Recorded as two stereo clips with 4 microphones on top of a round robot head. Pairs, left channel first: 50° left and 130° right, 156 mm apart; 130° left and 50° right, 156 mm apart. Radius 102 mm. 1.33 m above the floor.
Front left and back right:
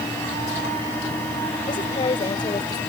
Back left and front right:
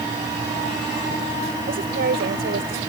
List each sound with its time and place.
1.7 s a woman speaking: 10° right; by 2.8 s 20° right